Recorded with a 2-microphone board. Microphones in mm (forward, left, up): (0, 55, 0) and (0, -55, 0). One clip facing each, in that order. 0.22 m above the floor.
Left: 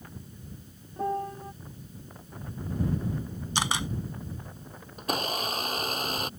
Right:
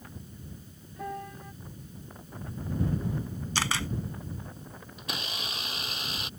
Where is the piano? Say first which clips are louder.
Left 7 dB; 35° left (ahead or behind).